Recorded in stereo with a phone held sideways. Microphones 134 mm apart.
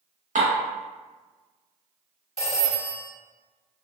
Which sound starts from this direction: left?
A phone ringing, at 2.4 s.